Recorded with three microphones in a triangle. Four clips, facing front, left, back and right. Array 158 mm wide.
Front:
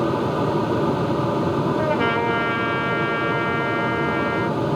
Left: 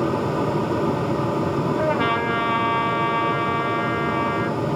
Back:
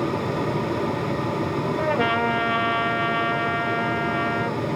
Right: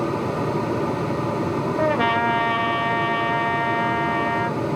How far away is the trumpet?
About 1.3 m.